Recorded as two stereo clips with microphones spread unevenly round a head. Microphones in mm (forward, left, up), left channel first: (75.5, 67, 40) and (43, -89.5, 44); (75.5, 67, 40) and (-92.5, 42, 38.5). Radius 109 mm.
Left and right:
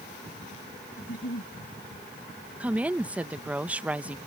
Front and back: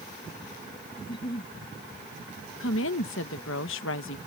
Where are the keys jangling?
No keys jangling in this recording.